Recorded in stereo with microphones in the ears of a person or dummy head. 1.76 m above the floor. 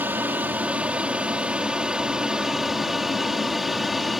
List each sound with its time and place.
0.0 s an aircraft: 10° right (ahead or behind); by 4.2 s centre (ahead or behind)